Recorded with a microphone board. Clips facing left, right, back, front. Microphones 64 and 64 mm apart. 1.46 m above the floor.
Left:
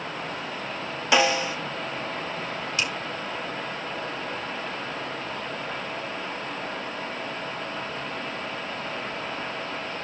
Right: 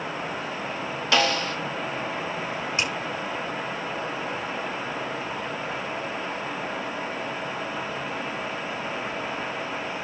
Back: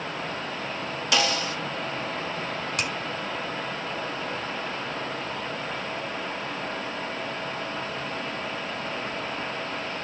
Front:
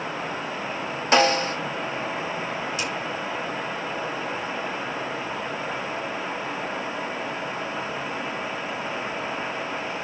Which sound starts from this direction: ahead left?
A snare drum, at 1.1 s.